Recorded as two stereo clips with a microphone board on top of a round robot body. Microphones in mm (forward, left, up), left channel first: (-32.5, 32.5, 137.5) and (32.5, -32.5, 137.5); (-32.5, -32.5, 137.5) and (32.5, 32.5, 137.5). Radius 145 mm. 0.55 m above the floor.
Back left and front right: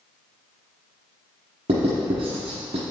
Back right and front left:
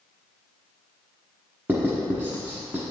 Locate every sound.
1.7 s writing: 25° right, 1.0 m